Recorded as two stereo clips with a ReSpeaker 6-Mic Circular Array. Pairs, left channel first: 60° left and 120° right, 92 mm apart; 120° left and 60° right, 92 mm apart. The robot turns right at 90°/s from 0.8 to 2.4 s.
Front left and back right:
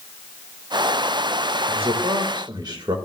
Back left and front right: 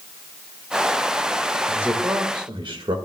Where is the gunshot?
I don't hear a gunshot.